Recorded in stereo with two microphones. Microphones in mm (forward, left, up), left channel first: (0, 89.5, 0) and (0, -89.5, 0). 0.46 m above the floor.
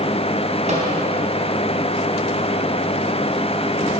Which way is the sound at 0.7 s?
40° right (ahead or behind).